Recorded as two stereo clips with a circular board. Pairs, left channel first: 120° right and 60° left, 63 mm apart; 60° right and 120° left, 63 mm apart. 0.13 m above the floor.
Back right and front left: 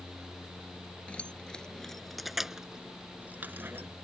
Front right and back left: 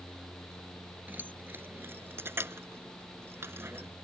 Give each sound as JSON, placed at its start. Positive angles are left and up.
{"t": 1.1, "sound": "keys jangling", "azimuth_deg": 175}